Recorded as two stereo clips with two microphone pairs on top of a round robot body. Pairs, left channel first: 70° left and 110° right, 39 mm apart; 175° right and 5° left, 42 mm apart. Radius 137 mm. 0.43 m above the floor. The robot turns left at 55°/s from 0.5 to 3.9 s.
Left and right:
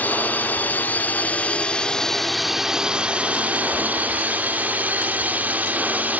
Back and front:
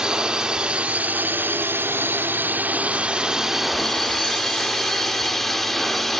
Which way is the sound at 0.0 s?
80° left.